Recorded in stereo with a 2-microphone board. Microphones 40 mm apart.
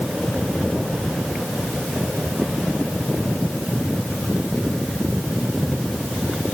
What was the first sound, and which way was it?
Only background noise.